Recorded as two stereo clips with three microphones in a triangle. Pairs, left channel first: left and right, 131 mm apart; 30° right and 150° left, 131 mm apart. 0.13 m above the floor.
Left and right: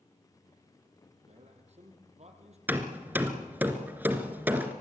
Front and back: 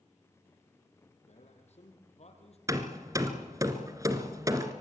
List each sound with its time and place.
1.3 s a man speaking: 60° right, 4.5 m
2.7 s hammering: 160° right, 1.6 m